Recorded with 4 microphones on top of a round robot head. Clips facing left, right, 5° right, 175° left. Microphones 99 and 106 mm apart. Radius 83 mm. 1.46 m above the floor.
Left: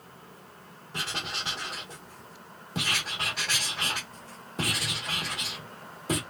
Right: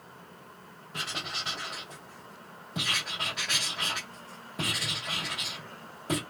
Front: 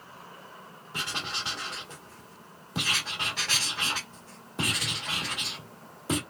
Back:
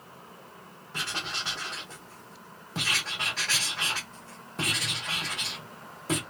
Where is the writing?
55° left, 1.1 m.